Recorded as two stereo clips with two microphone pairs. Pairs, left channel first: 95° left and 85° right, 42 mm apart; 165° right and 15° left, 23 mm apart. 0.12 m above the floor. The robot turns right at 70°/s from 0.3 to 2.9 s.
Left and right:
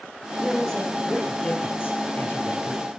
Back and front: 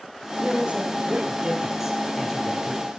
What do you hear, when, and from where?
0.4 s a man speaking: 5° right, 2 m; by 2.9 s 165° left, 2 m